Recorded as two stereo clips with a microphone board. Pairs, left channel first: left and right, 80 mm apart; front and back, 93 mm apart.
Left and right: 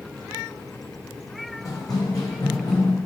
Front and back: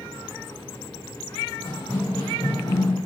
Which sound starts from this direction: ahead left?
Running footsteps, at 1.6 s.